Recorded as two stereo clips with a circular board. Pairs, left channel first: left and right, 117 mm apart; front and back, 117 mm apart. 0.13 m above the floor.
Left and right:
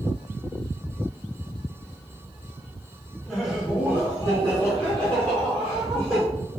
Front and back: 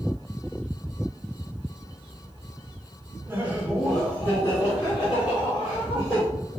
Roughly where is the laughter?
Behind.